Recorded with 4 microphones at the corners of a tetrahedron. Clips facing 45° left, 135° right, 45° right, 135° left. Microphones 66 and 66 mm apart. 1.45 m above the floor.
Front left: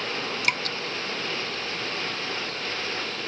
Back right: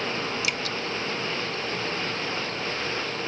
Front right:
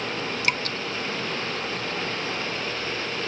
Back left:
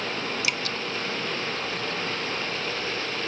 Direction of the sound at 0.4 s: 5° left.